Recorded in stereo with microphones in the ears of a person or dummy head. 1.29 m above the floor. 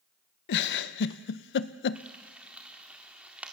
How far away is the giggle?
About 0.6 m.